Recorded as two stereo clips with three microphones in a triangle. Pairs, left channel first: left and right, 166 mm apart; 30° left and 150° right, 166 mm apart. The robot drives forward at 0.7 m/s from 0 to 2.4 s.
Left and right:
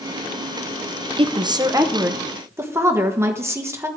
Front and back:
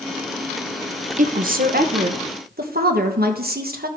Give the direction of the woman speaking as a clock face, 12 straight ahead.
5 o'clock.